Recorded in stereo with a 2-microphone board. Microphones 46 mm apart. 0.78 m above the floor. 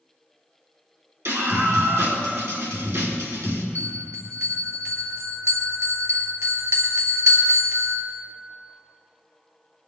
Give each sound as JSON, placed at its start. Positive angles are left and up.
{"t": 1.2, "sound": "a scream", "side_deg": -75, "distance_m": 4.0}
{"t": 3.8, "sound": "a bell", "side_deg": -75, "distance_m": 3.0}